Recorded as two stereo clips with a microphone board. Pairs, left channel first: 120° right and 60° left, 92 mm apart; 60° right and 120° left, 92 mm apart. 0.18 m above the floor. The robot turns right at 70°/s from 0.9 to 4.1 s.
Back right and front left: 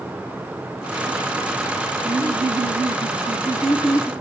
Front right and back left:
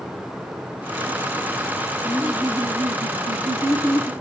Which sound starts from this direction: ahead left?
Laughter, at 2.0 s.